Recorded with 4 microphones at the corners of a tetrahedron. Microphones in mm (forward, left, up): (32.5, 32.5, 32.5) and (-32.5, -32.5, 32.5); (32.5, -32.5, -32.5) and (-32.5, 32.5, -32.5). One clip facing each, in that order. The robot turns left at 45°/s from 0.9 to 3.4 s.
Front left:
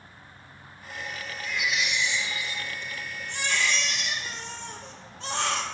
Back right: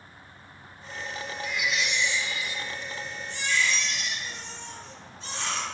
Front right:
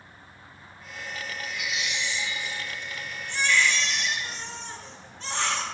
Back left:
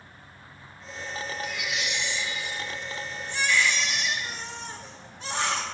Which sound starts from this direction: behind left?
A baby crying, at 1.4 s.